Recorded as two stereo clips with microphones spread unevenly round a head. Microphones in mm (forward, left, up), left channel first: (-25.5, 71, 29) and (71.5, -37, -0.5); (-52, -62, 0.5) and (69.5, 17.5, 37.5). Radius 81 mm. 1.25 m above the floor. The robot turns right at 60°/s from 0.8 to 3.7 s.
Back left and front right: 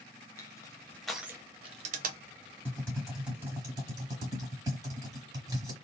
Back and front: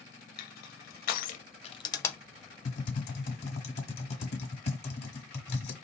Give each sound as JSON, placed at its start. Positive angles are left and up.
{"t": 0.4, "sound": "crushing", "azimuth_deg": -155, "distance_m": 0.6}
{"t": 2.6, "sound": "typing on a keyboard", "azimuth_deg": 180, "distance_m": 1.2}